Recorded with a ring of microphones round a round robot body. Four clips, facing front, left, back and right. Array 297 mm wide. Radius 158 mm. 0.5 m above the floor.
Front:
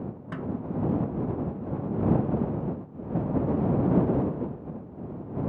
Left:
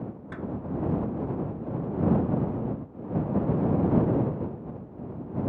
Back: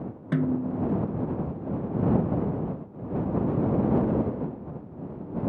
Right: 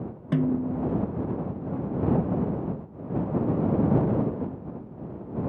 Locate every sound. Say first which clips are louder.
0.3 s a snare drum: right 9 dB, back 7 dB; 125° right